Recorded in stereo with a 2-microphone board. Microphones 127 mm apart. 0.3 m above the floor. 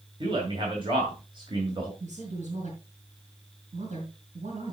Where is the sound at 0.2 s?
40° right (ahead or behind), 2.0 m.